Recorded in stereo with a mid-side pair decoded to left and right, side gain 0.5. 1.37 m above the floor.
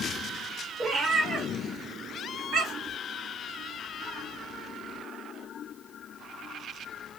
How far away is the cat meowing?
About 2 m.